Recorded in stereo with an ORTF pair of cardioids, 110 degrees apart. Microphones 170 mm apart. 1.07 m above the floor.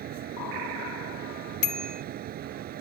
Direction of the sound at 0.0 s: 65° right.